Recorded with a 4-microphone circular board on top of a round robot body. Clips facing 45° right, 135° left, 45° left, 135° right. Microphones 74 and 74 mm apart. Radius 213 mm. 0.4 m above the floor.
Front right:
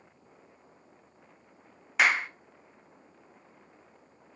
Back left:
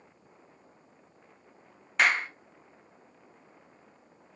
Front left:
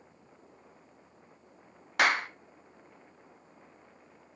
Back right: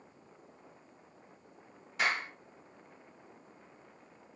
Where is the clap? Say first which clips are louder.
Even, front left 6 dB; 40° left, 0.8 m.